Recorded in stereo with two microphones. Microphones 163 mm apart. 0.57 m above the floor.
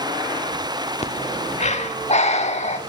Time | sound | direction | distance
1.0 | breathing | 45° left (ahead or behind) | 1.2 m